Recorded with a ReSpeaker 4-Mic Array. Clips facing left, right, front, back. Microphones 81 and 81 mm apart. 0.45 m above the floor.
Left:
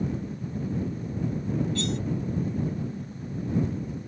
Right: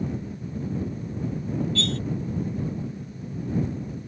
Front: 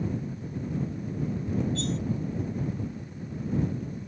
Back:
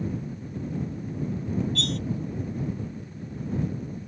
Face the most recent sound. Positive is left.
turn(degrees=160)